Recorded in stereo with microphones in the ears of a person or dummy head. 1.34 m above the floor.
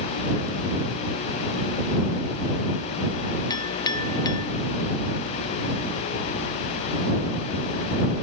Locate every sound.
3.5 s a clink: 25° left (ahead or behind)